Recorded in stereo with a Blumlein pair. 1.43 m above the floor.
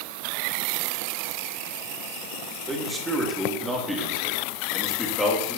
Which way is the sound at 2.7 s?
20° right.